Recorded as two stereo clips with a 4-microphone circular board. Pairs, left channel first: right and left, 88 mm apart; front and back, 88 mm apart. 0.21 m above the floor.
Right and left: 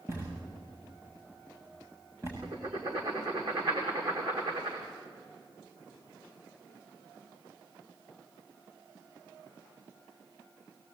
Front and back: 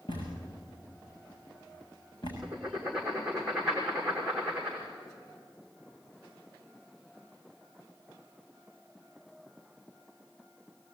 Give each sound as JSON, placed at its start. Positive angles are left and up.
{"t": 0.1, "sound": "a thud", "azimuth_deg": 35, "distance_m": 8.0}
{"t": 2.4, "sound": "writing", "azimuth_deg": 100, "distance_m": 6.0}